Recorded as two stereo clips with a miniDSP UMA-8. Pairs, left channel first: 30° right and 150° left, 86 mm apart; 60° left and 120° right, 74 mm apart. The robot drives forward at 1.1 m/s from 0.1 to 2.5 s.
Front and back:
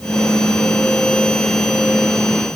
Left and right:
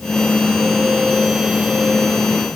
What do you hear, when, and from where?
Only background noise.